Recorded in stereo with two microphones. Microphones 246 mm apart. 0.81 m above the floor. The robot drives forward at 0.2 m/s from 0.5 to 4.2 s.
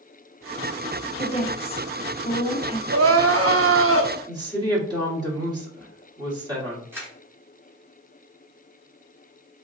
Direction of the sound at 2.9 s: 75° right (ahead or behind).